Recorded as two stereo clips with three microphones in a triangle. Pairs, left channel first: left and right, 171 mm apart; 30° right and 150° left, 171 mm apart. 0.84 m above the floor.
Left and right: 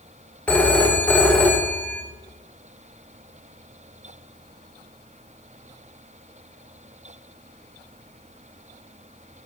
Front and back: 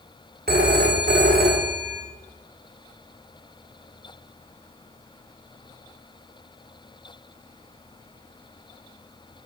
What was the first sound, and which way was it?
A phone ringing, 170° left.